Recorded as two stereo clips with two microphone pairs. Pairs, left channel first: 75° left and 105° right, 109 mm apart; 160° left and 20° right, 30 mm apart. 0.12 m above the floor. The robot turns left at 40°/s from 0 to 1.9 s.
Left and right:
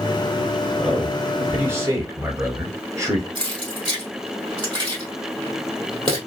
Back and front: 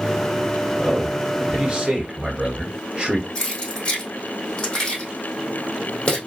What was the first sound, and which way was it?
A man speaking, 20° right.